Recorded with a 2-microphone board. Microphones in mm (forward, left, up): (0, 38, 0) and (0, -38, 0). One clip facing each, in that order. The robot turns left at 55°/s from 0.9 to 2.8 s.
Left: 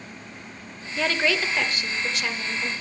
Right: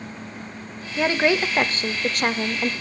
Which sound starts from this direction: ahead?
A woman speaking, at 1.0 s.